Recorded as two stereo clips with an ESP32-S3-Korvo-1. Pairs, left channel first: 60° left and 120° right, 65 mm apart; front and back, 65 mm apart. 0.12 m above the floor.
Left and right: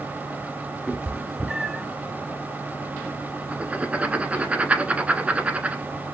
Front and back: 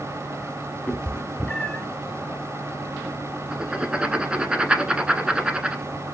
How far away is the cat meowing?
About 0.7 m.